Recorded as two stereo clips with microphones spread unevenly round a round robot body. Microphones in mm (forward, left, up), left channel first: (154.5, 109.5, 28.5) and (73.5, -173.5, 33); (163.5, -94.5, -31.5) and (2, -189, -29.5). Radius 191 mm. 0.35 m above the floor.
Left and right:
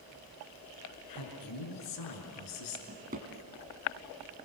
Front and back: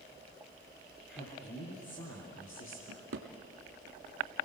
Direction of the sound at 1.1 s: 95° left.